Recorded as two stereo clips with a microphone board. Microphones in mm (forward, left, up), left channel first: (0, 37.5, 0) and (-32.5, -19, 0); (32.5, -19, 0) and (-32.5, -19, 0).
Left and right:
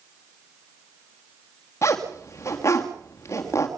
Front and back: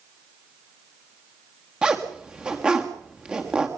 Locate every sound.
1.8 s a zipper: 105° left, 3.5 m